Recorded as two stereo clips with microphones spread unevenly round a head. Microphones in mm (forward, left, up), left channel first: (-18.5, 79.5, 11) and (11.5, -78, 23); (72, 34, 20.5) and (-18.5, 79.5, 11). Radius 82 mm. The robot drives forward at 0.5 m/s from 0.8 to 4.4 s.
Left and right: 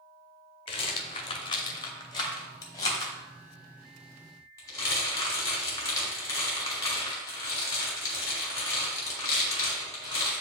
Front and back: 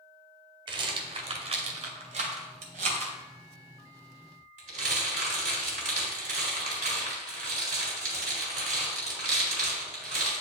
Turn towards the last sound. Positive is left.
turn(degrees=175)